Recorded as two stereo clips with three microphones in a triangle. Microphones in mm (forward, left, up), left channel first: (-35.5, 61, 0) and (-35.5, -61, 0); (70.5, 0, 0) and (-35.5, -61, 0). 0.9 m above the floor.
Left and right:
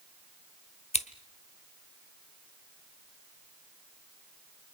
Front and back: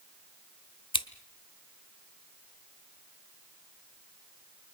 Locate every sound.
0.9 s scissors: 70° left, 1.1 m